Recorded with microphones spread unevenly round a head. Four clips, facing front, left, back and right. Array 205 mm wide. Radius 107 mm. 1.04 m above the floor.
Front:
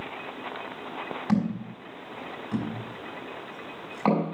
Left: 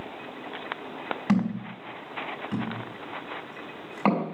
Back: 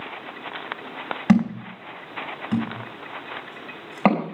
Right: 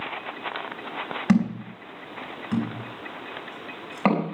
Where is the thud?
165° right, 4.5 m.